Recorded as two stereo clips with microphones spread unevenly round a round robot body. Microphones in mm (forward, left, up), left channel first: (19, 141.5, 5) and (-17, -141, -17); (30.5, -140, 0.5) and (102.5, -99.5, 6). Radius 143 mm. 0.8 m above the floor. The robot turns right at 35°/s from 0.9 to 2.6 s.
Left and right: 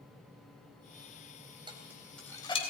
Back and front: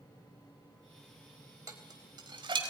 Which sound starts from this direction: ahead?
Dishes clattering, at 1.7 s.